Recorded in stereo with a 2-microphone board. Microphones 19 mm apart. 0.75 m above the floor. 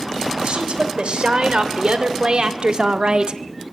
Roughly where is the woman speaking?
Right.